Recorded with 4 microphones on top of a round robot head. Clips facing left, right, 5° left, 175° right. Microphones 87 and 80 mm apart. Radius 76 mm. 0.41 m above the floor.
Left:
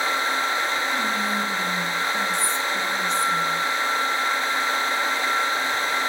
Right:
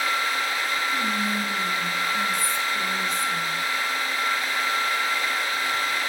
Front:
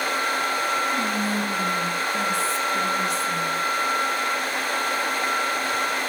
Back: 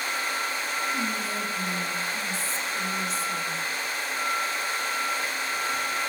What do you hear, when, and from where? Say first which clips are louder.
0.9 s whispering: left 1 dB, front 5 dB; 30° left, 4 m